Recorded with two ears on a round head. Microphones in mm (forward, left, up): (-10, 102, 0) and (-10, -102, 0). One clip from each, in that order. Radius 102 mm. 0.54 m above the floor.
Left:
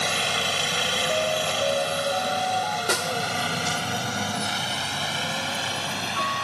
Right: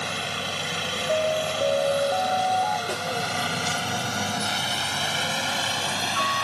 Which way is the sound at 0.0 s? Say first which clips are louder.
Left 5 dB; 30° left (ahead or behind).